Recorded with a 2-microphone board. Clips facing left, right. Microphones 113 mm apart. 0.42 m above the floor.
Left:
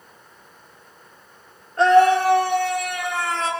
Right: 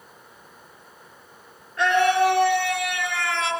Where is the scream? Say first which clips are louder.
Left 5 dB; 40° left (ahead or behind), 6 m.